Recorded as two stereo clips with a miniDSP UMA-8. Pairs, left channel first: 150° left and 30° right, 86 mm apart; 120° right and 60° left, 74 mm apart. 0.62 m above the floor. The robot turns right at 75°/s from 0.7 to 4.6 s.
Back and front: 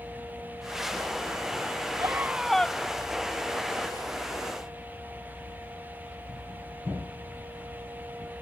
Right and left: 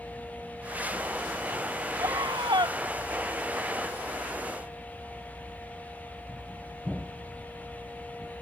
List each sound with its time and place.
2.0 s a scream: 20° left; by 2.8 s 80° left